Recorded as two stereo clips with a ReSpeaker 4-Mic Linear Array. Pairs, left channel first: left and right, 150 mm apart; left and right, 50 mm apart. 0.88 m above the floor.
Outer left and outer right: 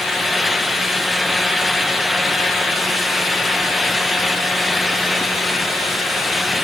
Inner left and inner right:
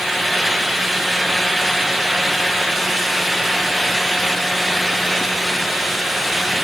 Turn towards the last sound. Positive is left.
No sound to turn to.